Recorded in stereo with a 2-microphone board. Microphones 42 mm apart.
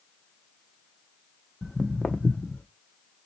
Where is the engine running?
No engine running in this recording.